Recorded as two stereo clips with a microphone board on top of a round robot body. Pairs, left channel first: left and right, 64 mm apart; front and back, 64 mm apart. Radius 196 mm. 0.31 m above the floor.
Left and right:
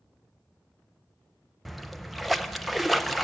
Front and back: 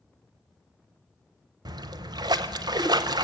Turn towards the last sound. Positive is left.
turn(degrees=180)